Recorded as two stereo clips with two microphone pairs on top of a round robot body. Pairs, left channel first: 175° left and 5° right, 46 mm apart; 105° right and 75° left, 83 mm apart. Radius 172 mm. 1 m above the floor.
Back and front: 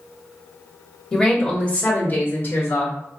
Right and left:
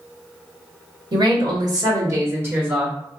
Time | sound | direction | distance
1.1 | a woman speaking | 95° left | 1.6 m